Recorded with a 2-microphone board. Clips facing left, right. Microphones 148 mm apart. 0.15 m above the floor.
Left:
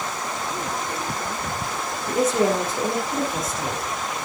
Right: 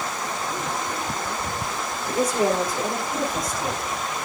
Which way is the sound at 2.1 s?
25° left (ahead or behind).